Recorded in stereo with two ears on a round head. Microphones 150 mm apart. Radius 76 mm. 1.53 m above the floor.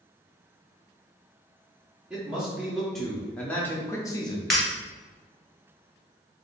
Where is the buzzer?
No buzzer in this recording.